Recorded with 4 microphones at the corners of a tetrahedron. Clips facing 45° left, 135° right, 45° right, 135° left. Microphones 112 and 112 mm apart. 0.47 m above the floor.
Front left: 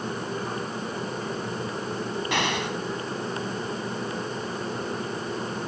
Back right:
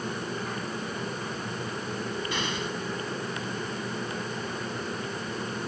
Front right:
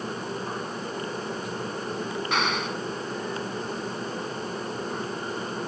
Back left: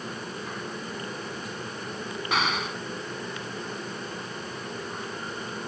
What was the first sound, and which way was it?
An explosion, 45° left.